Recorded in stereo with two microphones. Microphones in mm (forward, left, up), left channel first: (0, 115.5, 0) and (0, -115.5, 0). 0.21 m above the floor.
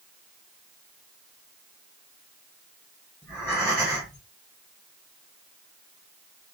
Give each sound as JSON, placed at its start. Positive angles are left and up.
{"t": 3.2, "sound": "breathing", "side_deg": -10, "distance_m": 2.0}